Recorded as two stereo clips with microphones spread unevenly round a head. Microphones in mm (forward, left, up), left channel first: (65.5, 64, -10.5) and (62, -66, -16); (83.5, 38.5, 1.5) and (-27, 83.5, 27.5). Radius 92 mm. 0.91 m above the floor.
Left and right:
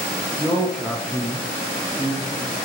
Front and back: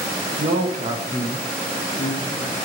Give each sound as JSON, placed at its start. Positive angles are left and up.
{"t": 0.4, "sound": "a man speaking", "azimuth_deg": 175, "distance_m": 1.0}